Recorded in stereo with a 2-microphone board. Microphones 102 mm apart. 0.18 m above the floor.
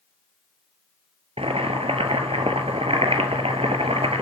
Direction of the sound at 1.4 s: 75° right (ahead or behind).